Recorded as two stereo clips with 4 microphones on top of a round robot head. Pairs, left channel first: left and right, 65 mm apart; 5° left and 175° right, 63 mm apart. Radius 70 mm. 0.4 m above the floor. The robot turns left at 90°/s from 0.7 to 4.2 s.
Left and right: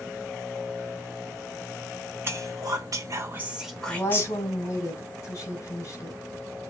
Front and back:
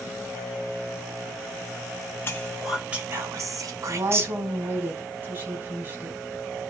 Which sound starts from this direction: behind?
A woman speaking, at 3.9 s.